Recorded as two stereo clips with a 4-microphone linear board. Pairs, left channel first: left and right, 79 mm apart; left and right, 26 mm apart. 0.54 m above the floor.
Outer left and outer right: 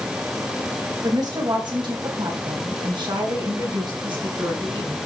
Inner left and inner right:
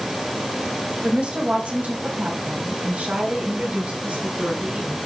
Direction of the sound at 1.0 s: 55° right (ahead or behind).